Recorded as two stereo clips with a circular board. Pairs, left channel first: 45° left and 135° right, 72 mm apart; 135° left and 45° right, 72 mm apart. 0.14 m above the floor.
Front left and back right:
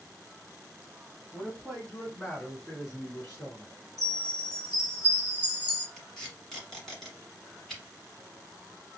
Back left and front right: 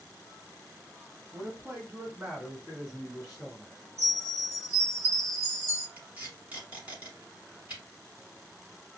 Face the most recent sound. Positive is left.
turn(degrees=-35)